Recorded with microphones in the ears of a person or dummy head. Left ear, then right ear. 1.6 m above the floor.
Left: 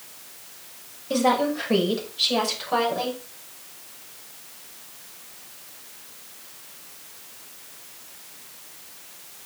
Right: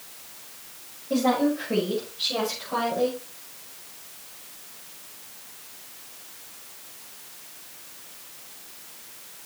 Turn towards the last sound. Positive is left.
turn(degrees=30)  # may be behind; listen again after turning